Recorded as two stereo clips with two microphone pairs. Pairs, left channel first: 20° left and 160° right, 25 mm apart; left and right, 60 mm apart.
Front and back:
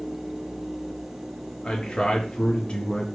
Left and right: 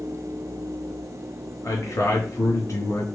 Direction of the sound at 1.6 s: 60° left.